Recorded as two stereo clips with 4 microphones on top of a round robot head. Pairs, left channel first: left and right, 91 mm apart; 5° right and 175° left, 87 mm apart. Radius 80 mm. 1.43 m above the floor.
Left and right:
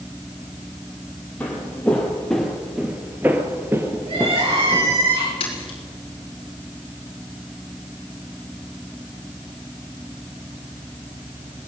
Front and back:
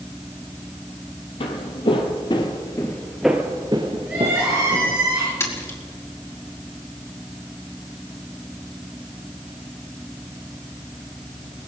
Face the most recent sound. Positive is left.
turn(degrees=55)